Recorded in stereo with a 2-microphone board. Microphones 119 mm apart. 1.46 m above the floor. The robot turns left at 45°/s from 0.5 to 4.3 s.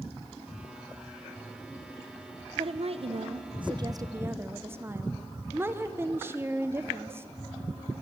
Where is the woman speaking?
80° right, 0.5 m; by 7.3 s 155° right, 0.5 m.